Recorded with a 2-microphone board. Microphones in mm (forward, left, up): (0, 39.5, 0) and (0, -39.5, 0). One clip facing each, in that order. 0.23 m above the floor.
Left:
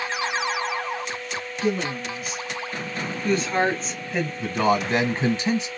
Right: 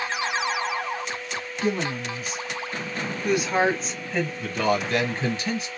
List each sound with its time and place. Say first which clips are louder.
1.6 s a woman speaking: left 1 dB; 50° right (ahead or behind), 1.4 m; by 4.3 s 10° left (ahead or behind), 1.3 m
4.4 s a man speaking: left 4 dB; 25° left (ahead or behind), 1.3 m